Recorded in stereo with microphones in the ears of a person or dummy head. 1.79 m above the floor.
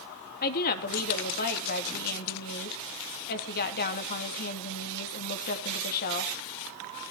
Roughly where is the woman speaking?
Left.